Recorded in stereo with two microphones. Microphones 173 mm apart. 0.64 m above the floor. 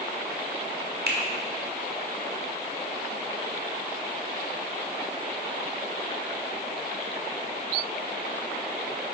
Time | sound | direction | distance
1.1 | a finger snap | 70° right (ahead or behind) | 1.4 m